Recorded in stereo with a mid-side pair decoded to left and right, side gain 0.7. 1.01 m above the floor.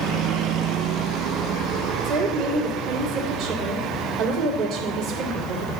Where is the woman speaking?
60° right, 2.5 m.